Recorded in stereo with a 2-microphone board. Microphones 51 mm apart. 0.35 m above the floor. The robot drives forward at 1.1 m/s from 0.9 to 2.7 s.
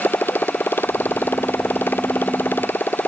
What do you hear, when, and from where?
0.0 s a motorcycle: 45° left (ahead or behind)